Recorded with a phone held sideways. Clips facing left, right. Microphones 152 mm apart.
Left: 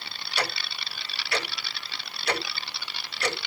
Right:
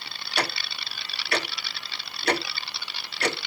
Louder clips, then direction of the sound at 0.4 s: Right 2 dB; 60° right (ahead or behind).